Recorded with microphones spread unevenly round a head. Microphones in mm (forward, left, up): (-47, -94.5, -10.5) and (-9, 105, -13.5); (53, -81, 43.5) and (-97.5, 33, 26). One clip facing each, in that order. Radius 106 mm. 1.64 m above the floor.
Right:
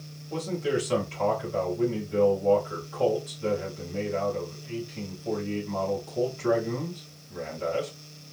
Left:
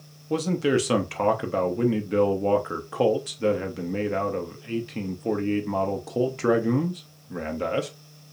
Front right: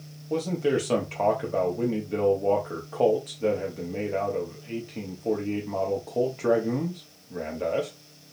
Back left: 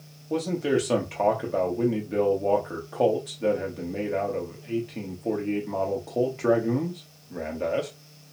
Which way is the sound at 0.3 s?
55° left.